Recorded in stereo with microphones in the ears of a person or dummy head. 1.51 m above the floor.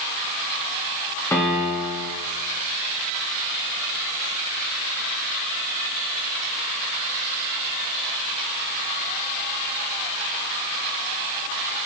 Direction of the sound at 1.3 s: 15° left (ahead or behind).